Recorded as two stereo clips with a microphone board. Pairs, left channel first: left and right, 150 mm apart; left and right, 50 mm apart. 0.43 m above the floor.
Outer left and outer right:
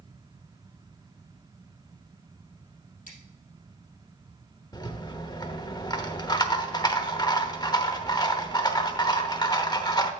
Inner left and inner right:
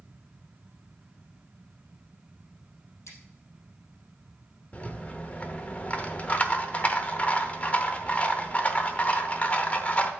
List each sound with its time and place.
3.1 s scissors: 65° left (ahead or behind), 4 m
4.7 s a rattle: 30° left (ahead or behind), 0.8 m